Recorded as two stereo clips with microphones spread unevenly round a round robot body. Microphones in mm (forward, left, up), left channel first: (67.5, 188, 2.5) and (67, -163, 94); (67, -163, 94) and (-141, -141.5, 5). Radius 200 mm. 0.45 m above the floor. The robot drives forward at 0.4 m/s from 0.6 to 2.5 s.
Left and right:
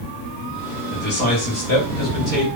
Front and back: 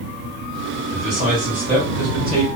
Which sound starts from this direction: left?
A man speaking, at 0.9 s.